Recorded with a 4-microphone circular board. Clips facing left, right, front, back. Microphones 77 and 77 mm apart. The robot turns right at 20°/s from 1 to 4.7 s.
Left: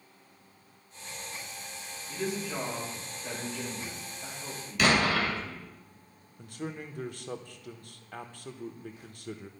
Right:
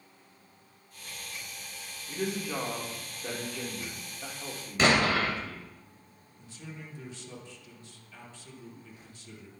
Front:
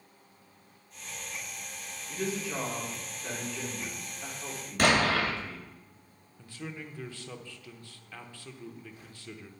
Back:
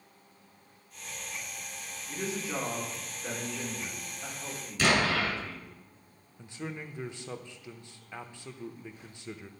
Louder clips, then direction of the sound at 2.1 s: Right 1 dB, front 1 dB; 120° right.